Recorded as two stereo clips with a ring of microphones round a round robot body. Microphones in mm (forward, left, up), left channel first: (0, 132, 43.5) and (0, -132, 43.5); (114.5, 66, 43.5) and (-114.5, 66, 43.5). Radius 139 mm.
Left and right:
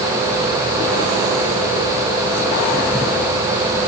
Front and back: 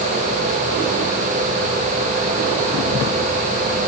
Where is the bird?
No bird in this recording.